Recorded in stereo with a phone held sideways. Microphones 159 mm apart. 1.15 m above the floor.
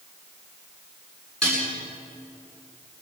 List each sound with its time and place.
1.4 s dishes clattering: 5° left (ahead or behind), 9.5 m